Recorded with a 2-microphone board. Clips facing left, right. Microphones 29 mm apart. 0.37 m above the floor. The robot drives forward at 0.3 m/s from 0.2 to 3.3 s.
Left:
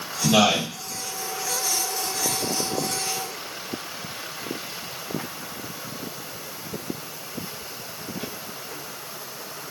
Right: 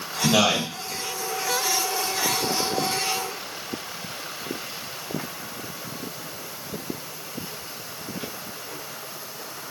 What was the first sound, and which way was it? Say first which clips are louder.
A man speaking: left 1 dB; centre (ahead or behind).